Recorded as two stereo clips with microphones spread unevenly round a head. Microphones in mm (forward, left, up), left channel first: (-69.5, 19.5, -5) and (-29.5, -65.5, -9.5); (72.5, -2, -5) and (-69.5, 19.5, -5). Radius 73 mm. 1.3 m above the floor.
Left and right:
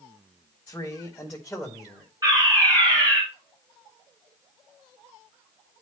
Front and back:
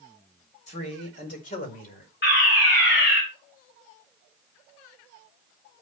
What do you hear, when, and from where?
0.7 s a man speaking: 35° left, 4.5 m; by 2.1 s 25° left, 5 m
2.2 s a fire alarm: straight ahead, 4 m